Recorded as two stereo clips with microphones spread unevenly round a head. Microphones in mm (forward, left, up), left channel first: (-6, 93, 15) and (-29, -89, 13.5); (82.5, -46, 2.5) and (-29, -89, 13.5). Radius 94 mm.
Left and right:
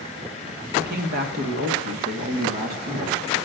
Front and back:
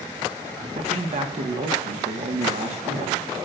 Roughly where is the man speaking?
Behind right.